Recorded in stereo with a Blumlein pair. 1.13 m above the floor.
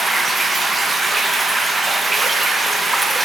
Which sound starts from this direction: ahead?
Running water, at 0.0 s.